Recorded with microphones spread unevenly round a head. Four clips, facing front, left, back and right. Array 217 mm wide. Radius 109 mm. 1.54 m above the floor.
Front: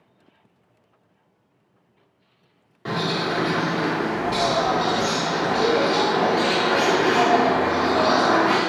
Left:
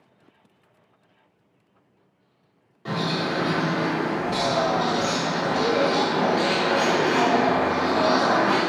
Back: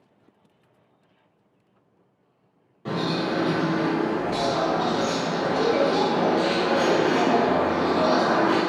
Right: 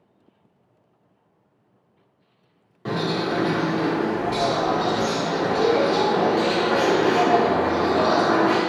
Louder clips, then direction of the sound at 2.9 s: Right 2 dB, front 1 dB; 50° right.